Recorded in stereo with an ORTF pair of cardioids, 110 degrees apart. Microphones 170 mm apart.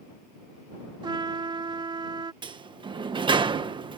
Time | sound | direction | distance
1.0 | a trumpet | 25° right | ?
2.4 | a sliding door | 30° right | ?